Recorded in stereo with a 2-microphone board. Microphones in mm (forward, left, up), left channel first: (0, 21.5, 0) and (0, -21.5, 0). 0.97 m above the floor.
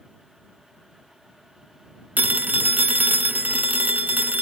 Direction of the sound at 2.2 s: 40° right (ahead or behind).